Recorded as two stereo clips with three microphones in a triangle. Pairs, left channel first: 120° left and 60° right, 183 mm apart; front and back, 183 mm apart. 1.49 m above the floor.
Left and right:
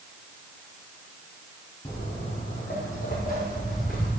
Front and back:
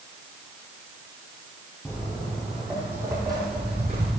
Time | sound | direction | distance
1.9 | footsteps | 70° left | 2 m